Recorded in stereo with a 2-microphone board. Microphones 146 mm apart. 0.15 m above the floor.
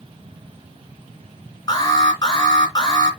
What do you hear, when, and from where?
1.7 s an alarm: 30° left (ahead or behind), 2.5 m